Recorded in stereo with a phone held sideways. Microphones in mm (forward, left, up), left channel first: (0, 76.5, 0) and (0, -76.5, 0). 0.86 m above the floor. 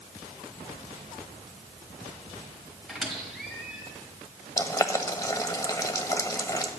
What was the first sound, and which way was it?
A squeak, centre (ahead or behind).